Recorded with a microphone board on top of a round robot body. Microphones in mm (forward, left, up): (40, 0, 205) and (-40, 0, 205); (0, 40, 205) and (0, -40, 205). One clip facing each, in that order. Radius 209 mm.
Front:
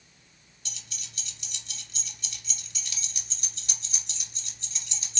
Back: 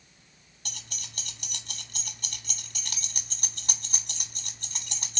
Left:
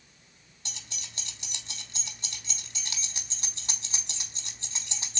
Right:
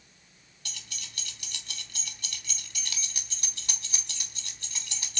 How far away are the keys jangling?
About 0.8 m.